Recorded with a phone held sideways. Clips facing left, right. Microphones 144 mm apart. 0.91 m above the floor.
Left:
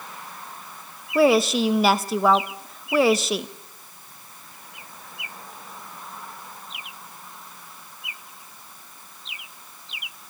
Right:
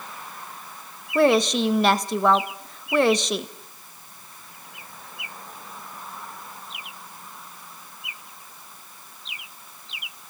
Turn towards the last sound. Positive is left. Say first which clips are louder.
# left 1 dB
turn(degrees=5)  # may be behind; listen again after turning